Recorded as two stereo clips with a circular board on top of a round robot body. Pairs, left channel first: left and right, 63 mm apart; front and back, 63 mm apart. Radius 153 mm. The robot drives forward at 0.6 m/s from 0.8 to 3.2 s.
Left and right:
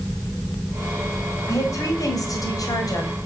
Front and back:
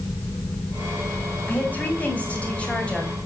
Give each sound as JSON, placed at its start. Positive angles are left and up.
{"t": 1.5, "sound": "a woman speaking", "azimuth_deg": 65, "distance_m": 5.0}